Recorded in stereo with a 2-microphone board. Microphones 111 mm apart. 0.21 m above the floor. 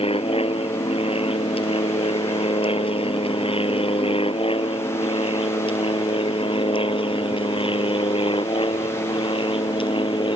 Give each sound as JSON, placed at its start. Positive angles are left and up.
{"t": 0.0, "sound": "an aircraft", "side_deg": 60}